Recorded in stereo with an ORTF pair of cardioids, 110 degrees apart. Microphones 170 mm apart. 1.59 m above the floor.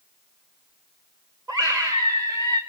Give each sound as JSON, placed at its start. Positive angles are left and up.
{"t": 1.5, "sound": "a scream", "azimuth_deg": -25, "distance_m": 2.5}